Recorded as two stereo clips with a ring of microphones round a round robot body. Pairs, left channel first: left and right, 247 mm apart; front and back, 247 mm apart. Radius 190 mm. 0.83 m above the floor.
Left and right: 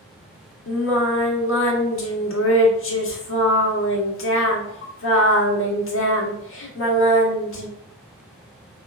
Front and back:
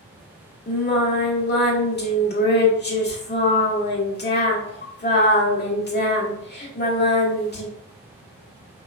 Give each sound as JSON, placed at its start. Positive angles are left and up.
{"t": 0.7, "sound": "singing", "azimuth_deg": 50, "distance_m": 1.2}